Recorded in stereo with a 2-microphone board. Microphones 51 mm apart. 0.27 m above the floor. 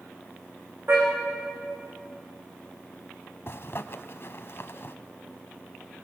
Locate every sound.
0.9 s a car horn: 50° right (ahead or behind), 8.5 m
3.5 s a zipper: 50° left (ahead or behind), 0.9 m